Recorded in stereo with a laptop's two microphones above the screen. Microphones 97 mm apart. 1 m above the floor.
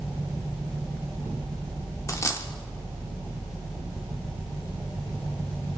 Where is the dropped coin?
30° left (ahead or behind), 1.3 m.